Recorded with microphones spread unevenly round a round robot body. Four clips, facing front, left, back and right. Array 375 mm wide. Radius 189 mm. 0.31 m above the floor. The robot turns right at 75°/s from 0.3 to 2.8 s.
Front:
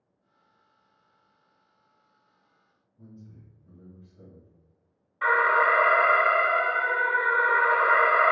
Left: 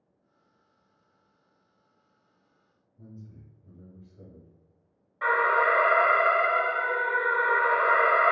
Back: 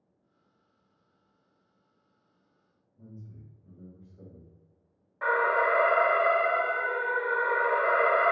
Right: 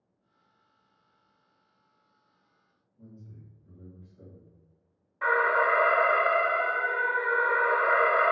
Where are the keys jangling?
I don't hear keys jangling.